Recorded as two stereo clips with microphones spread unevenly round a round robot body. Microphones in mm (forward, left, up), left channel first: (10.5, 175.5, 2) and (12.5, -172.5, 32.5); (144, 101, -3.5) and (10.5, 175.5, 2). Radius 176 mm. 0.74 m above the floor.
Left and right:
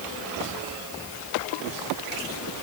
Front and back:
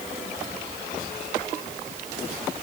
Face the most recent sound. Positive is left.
No sound to turn to.